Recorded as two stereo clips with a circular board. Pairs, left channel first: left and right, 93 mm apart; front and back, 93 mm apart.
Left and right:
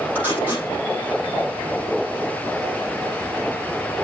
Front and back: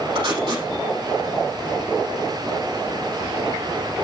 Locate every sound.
0.1 s tape being pulled: 160° right, 7.5 m